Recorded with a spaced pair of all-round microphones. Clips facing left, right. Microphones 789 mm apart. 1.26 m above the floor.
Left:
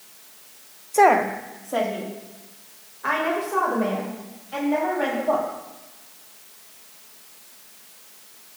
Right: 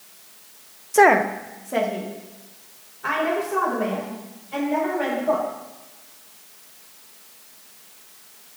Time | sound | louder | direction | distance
0.9 | a woman speaking | right 2 dB | 55° right (ahead or behind) | 0.5 m